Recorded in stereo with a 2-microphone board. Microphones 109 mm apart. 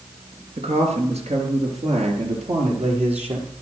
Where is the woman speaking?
75° right (ahead or behind), 4.5 m; by 3.5 s 70° right (ahead or behind), 6 m.